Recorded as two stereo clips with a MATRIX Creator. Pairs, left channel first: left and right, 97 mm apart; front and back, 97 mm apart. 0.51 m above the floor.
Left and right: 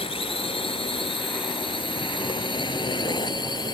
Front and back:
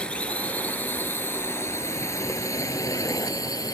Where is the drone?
80° left; by 3.7 s 50° left.